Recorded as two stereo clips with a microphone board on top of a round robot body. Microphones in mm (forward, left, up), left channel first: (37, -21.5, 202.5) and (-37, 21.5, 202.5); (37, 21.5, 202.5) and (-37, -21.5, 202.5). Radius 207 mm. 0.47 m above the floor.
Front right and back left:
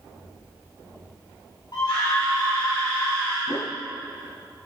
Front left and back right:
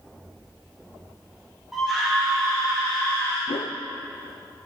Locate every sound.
1.7 s a scream: 65° right, 4 m; by 3.4 s 35° right, 5 m
3.5 s a whoosh: 25° left, 0.5 m